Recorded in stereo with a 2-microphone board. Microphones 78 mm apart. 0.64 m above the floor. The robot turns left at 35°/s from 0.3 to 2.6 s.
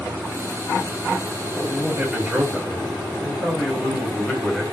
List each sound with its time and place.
1.5 s a man speaking: 155° right, 1.8 m; by 4.6 s 165° left, 1.8 m